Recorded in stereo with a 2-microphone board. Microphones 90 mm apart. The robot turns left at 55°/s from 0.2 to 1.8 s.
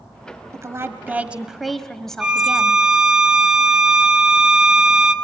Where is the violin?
10° right (ahead or behind), 1.5 m.